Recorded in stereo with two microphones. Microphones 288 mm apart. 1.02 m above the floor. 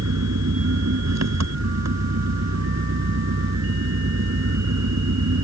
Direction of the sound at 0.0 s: 80° right.